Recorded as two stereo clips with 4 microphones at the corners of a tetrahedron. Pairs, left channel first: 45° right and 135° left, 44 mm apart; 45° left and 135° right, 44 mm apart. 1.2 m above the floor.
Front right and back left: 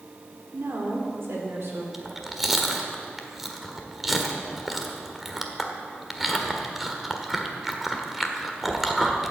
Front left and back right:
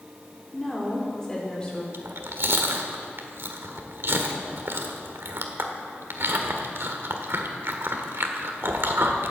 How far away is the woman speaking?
About 3.5 m.